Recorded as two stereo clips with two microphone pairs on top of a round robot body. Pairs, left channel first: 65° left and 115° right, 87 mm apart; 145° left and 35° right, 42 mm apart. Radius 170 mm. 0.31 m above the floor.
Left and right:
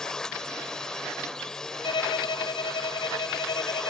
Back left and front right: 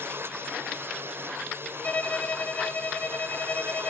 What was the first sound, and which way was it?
A drone, 20° right.